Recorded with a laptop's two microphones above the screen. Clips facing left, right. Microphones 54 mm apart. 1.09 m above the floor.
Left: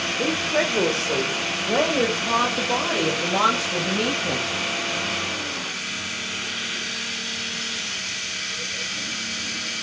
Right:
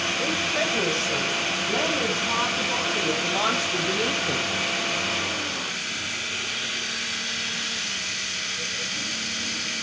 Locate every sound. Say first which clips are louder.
0.2 s a woman speaking: left 5 dB; 60° left (ahead or behind), 3 m; by 4.5 s 80° left, 6 m